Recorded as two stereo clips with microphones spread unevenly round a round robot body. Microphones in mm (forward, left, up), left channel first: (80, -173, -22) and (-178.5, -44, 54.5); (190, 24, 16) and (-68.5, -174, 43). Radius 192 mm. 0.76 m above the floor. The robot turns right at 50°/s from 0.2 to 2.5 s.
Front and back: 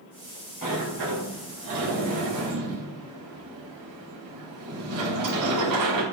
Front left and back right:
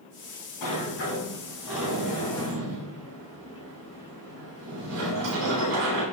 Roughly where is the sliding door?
Left.